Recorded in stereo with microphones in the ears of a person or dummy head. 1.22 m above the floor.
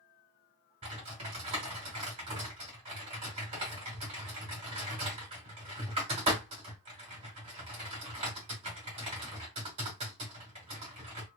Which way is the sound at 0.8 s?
35° right (ahead or behind).